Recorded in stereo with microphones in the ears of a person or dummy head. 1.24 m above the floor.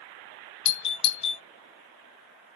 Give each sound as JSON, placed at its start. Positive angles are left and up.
{"t": 0.7, "sound": "a doorbell", "side_deg": 30, "distance_m": 0.7}